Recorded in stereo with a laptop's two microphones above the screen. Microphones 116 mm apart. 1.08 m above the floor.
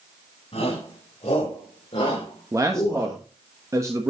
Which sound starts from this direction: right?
A man speaking, at 2.5 s.